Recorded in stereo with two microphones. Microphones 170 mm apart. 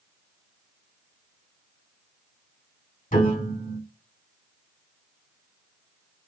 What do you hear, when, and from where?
3.1 s a piano: 50° left (ahead or behind), 2.5 m